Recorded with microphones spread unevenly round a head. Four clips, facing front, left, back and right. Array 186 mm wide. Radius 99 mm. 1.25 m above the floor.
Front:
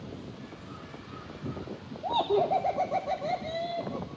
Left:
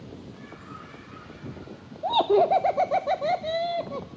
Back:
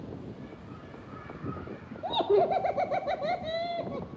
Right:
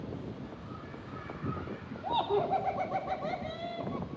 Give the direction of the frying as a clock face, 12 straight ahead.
I don't hear frying.